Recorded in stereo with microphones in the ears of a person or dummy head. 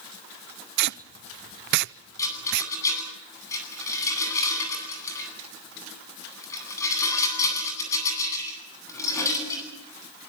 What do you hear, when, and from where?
0.8 s tape being pulled: 65° right (ahead or behind), 0.6 m
2.2 s a rattle: 25° left (ahead or behind), 9.5 m